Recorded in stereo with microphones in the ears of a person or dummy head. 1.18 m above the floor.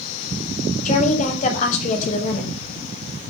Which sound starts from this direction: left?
A woman speaking, at 0.8 s.